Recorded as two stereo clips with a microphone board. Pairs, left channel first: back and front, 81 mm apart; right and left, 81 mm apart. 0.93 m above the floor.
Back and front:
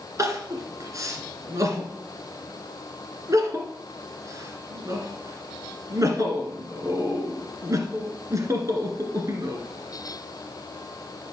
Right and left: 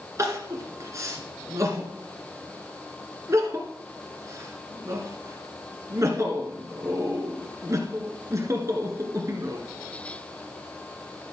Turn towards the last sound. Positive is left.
turn(degrees=45)